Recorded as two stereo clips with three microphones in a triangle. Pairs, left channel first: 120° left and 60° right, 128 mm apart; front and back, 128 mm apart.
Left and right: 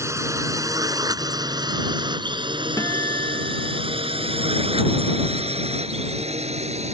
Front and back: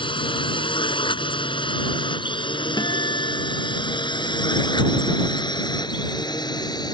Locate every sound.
0.0 s a drone: 5° right; by 7.0 s 50° right
2.8 s a guitar: 55° left